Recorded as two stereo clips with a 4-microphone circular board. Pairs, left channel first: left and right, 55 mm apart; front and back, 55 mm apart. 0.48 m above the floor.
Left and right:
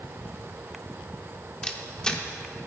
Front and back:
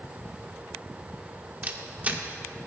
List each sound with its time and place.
1.6 s a camera shutter: 155° left, 0.9 m